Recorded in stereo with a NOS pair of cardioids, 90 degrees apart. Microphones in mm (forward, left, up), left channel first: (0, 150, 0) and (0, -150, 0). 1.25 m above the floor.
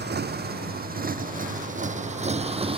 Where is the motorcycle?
35° right; by 2.8 s 20° right.